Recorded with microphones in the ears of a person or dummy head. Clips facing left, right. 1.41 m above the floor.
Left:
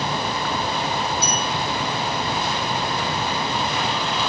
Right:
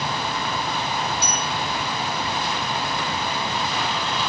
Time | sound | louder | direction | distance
1.2 | a bell | left 2 dB | 15° right (ahead or behind) | 8 m